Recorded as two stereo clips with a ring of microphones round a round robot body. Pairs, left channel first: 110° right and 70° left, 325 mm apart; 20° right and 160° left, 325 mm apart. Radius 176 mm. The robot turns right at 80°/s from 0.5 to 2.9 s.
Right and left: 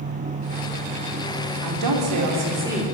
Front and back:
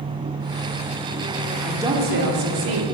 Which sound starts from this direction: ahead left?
A woman speaking, at 1.6 s.